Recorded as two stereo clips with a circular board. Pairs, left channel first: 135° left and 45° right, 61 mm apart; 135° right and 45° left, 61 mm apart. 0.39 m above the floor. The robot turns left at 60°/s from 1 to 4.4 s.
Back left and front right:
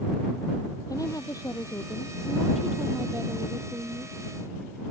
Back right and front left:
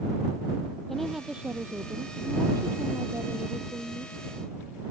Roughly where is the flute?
I don't hear a flute.